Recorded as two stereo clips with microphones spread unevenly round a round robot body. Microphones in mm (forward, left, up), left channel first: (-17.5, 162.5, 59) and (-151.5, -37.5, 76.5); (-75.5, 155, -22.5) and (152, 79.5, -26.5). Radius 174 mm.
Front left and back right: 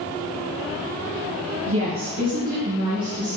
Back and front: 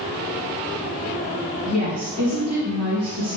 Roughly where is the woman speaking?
Right.